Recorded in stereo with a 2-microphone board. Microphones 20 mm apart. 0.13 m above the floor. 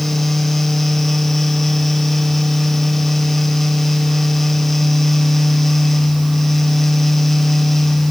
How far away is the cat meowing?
I don't hear a cat meowing.